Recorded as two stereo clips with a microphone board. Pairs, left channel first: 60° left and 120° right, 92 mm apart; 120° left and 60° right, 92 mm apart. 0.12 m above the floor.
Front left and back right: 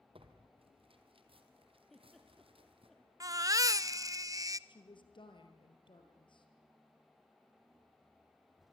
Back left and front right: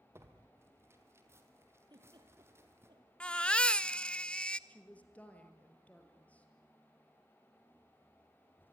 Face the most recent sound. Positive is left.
turn(degrees=45)